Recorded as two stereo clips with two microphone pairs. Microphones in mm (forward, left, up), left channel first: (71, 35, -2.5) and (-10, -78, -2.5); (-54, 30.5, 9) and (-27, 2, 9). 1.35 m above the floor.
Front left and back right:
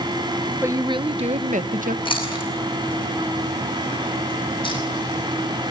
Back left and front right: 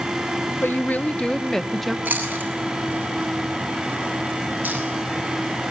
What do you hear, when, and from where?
0.6 s a woman speaking: 165° left, 1.0 m; by 1.9 s 140° right, 1.3 m
2.0 s chewing: straight ahead, 8 m